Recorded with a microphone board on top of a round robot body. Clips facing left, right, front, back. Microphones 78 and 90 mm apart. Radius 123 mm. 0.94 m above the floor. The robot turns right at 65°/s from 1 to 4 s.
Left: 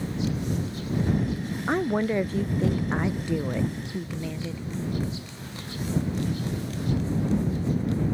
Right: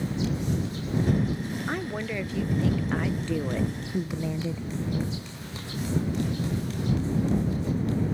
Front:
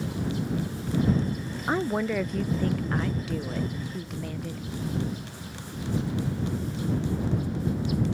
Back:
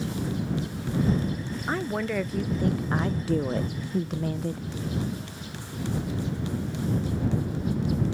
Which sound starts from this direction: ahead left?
A woman speaking, at 1.7 s.